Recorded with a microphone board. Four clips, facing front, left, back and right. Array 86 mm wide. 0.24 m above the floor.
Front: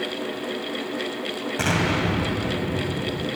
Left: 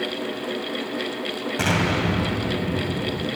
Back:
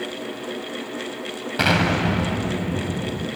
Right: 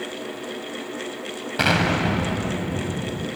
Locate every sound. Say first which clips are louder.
1.6 s an explosion: right 2 dB, back 4 dB; 135° right, 1.3 m